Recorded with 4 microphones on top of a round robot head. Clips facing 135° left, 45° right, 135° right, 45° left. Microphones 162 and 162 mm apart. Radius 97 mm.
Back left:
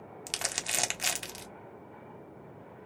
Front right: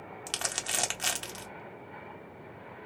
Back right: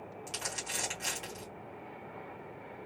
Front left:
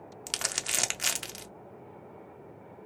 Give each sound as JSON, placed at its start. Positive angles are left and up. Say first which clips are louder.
{"t": 0.3, "sound": "crumpling", "louder": "front right 1 dB, front left 4 dB", "azimuth_deg": 60, "distance_m": 0.7}